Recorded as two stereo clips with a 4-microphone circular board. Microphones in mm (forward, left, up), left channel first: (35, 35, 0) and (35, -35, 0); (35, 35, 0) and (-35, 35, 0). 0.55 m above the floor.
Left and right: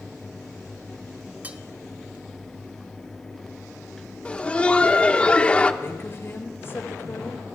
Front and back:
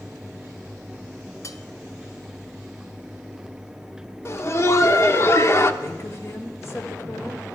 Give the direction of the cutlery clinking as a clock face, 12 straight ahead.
1 o'clock.